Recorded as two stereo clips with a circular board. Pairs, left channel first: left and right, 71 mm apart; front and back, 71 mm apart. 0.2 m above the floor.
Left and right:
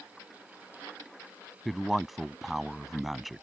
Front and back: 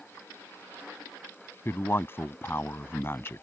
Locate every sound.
1.6 s a man speaking: straight ahead